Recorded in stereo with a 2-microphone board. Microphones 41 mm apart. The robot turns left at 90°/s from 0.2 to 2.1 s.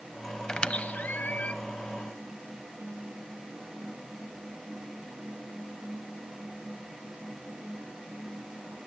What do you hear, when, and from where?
0.5 s a squeak: 20° left (ahead or behind), 0.7 m; by 1.5 s 35° left (ahead or behind), 0.7 m